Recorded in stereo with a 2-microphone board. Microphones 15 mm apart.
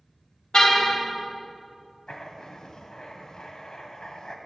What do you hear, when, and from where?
0.5 s a car horn: 55° left (ahead or behind), 3 m
2.1 s writing: 55° left (ahead or behind), 1.9 m